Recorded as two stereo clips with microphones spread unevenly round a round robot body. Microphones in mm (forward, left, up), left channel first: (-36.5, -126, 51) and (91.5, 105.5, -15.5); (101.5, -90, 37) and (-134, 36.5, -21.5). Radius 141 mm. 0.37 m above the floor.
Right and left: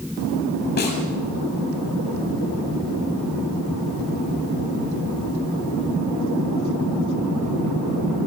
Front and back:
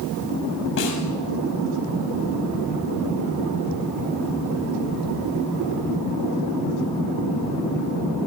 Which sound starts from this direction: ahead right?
A snare drum, at 0.8 s.